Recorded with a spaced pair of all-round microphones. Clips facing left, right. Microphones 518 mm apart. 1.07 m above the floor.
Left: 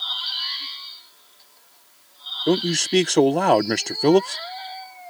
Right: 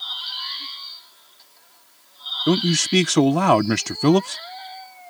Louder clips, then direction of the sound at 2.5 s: Even; 25° right (ahead or behind).